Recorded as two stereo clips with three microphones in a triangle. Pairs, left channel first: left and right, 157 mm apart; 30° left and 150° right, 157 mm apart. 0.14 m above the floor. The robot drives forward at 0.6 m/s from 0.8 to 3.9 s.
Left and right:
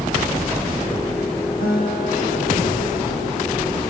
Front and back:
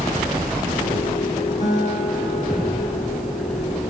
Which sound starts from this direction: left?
A guitar, at 1.6 s.